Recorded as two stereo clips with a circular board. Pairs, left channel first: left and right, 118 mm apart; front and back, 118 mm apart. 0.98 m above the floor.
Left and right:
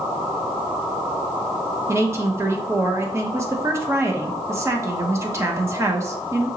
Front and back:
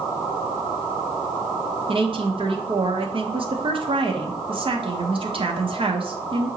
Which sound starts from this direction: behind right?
A woman speaking, at 1.9 s.